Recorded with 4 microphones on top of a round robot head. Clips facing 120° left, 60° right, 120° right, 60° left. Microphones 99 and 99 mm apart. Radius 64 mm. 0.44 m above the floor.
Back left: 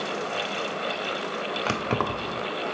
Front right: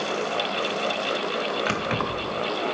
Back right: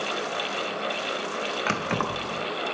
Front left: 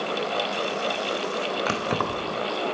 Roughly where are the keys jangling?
Behind left.